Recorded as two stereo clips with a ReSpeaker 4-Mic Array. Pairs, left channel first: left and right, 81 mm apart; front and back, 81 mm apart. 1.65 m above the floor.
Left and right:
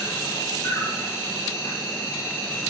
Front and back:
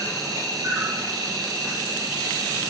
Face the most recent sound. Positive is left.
turn(degrees=140)